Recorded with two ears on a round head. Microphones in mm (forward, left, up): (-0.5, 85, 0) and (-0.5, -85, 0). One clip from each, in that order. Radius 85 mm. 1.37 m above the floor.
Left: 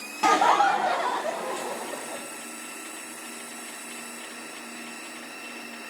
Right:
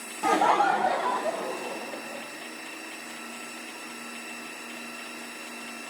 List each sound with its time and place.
0.2 s laughter: 40° left (ahead or behind), 0.6 m; by 2.2 s 35° left (ahead or behind), 2 m